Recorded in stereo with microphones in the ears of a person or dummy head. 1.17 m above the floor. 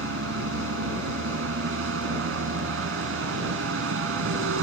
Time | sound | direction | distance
0.0 | a vehicle | 90° right | ?